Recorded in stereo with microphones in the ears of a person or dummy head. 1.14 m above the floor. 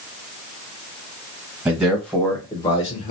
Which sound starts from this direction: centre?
A man speaking, at 1.6 s.